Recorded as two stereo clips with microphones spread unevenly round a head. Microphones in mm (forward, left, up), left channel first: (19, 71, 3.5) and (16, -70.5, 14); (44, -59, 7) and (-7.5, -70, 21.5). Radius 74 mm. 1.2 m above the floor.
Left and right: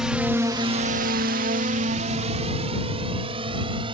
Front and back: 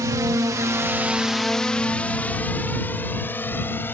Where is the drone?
Straight behind; by 4.0 s 35° right.